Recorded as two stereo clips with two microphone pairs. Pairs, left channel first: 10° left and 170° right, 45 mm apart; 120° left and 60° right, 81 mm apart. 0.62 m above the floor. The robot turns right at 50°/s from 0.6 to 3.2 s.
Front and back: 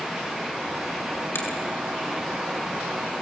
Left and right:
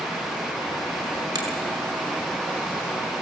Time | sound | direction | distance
1.4 | a finger snap | 15° right | 5.5 m